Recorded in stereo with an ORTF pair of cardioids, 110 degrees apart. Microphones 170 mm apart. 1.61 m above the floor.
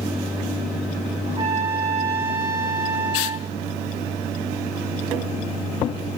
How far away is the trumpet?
About 4 m.